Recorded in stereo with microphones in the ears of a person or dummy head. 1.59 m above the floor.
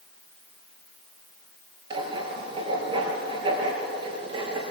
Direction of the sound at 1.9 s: 30° right (ahead or behind).